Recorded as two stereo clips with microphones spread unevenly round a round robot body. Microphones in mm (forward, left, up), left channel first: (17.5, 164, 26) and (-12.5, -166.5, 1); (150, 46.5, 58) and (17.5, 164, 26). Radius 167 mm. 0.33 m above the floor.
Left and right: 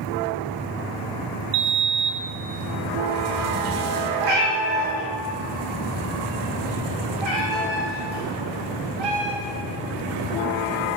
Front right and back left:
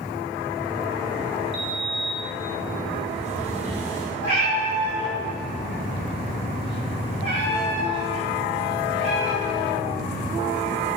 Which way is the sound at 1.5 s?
140° right.